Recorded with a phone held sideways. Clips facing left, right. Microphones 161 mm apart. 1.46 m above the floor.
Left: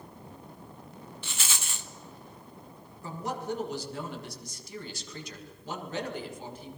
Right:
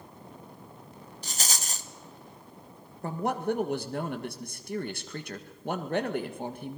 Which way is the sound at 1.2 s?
40° right (ahead or behind).